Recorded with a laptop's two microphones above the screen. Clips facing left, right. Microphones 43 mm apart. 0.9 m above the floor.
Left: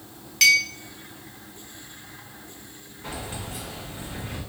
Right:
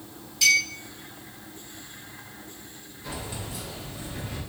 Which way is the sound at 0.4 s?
70° left (ahead or behind).